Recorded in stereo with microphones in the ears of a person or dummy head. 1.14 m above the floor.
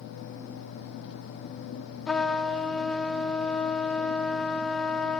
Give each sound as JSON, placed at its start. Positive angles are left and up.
{"t": 2.1, "sound": "a trumpet", "side_deg": 5, "distance_m": 0.6}